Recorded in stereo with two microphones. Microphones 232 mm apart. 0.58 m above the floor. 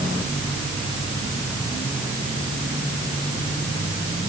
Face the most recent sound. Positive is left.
No sound to turn to.